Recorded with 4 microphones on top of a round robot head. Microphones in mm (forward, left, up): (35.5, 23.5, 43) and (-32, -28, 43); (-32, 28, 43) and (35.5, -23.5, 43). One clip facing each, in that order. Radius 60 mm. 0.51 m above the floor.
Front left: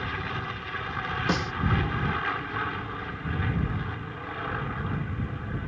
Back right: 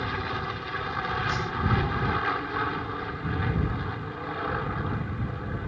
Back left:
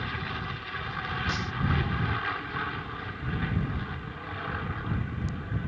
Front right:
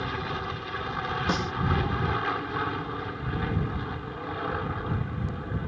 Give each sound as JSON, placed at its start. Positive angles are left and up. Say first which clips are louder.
{"t": 0.0, "sound": "an aircraft", "louder": "back right 2 dB, front right 3 dB", "azimuth_deg": -80}
{"t": 1.3, "sound": "a snare drum", "louder": "front left 2 dB, front right 5 dB", "azimuth_deg": 5}